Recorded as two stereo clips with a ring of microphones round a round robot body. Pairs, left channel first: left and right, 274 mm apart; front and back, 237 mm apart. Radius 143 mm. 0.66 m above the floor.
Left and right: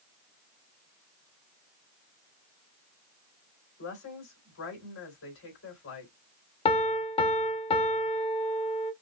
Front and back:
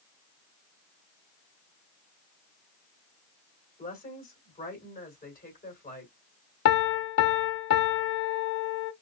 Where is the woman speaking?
50° left, 3 m.